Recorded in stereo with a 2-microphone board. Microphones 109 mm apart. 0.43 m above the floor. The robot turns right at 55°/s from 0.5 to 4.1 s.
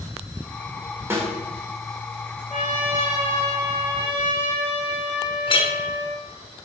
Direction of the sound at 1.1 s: 20° right (ahead or behind).